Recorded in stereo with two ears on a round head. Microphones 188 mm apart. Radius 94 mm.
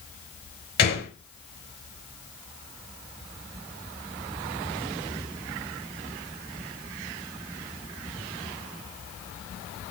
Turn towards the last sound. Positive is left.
turn(degrees=50)  # may be behind; listen again after turning